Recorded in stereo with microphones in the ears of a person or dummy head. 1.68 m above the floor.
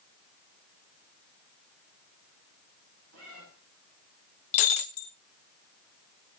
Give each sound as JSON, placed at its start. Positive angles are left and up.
{"t": 3.1, "sound": "a cat meowing", "side_deg": -75, "distance_m": 8.0}
{"t": 4.5, "sound": "breaking glass", "side_deg": 40, "distance_m": 1.0}